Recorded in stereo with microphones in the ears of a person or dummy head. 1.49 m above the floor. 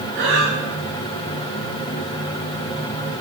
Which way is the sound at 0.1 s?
55° right (ahead or behind).